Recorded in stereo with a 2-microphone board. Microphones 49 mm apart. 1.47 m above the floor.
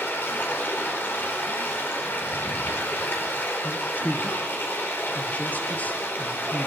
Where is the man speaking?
30° left (ahead or behind), 1.6 m.